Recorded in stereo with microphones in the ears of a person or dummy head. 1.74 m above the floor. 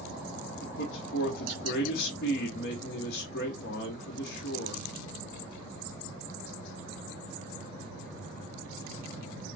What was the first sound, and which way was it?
A man speaking, 65° left (ahead or behind).